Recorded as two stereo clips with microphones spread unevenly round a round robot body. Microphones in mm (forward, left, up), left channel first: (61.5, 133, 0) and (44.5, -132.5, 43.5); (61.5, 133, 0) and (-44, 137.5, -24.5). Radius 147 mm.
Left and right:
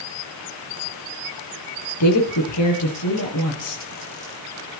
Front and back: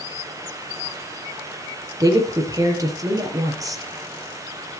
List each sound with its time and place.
2.0 s a woman speaking: 120° left, 6 m